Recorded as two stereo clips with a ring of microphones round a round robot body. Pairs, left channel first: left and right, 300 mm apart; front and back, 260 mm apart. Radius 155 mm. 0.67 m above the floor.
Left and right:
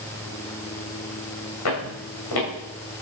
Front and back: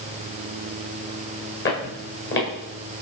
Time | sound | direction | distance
1.6 | footsteps | 45° left | 5.5 m